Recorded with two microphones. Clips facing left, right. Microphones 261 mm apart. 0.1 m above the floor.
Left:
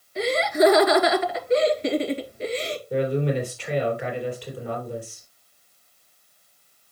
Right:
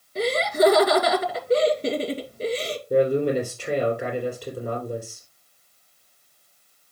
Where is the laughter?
40° right (ahead or behind), 1.7 m.